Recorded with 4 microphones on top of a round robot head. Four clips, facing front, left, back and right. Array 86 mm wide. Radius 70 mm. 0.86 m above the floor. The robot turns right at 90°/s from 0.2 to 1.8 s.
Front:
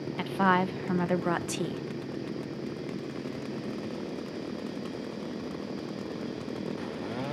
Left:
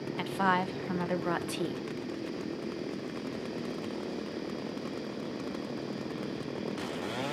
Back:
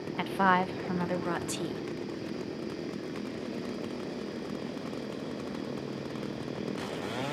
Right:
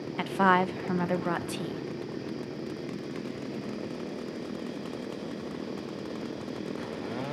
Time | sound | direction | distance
0.2 | a woman speaking | 115° right | 0.6 m